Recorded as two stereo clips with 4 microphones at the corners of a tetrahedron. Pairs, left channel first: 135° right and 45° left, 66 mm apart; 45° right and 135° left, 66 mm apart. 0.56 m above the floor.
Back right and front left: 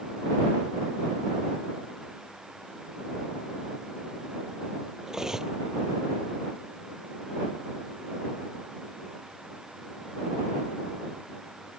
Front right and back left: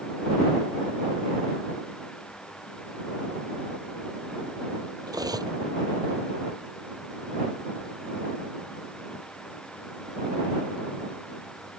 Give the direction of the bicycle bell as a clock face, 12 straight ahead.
I don't hear a bicycle bell.